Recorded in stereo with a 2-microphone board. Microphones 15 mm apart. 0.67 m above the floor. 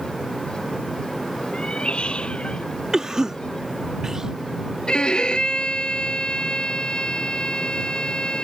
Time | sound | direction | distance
1.5 | a cat meowing | 85° left | ?
2.9 | a cough | 35° right (ahead or behind) | ?
4.9 | a violin | 60° left (ahead or behind) | ?